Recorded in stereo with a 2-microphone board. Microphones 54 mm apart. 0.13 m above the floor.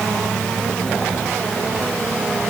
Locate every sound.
Only background noise.